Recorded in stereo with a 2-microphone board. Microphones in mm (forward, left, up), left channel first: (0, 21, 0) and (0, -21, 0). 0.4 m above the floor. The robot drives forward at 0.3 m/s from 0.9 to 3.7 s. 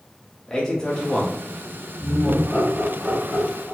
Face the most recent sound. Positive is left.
turn(degrees=20)  # may be behind; listen again after turning